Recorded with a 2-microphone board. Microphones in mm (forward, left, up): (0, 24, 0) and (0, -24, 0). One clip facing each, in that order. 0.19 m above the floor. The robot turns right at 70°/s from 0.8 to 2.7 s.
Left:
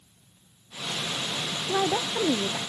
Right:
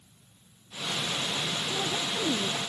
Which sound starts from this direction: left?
A woman speaking, at 1.7 s.